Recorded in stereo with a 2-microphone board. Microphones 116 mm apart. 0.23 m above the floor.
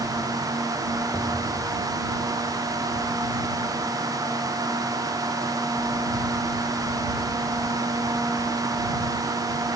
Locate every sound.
1.1 s an explosion: 25° left (ahead or behind)